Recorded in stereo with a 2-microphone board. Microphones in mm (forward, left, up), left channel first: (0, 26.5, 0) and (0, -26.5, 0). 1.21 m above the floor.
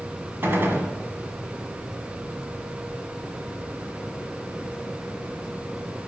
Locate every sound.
0.4 s a gunshot: 45° right (ahead or behind), 1.4 m